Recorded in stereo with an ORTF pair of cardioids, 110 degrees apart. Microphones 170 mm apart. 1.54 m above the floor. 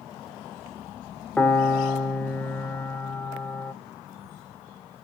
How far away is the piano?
About 0.7 m.